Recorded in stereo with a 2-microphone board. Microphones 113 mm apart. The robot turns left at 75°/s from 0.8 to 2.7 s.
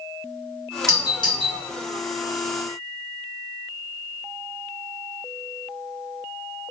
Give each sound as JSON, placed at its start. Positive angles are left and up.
{"t": 0.9, "sound": "a doorbell", "side_deg": 25, "distance_m": 1.9}